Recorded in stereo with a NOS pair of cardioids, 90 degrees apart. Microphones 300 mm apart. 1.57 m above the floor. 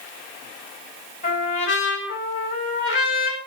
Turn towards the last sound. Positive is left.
turn(degrees=40)